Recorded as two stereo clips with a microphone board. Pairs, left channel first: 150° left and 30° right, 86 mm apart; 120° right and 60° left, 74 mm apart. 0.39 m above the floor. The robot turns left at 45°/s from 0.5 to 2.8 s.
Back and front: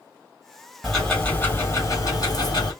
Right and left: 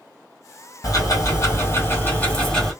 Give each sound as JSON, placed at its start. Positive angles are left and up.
{"t": 0.8, "sound": "ticking", "azimuth_deg": -120, "distance_m": 2.0}